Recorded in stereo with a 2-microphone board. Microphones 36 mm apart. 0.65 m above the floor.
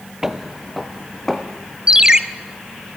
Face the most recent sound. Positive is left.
turn(degrees=-20)  # may be behind; listen again after turning